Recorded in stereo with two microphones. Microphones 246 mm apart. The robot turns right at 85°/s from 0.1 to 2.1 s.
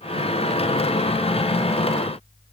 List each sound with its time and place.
Only background noise.